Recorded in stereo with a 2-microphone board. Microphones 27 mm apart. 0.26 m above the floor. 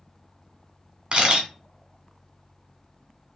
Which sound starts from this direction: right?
A camera shutter, at 1.1 s.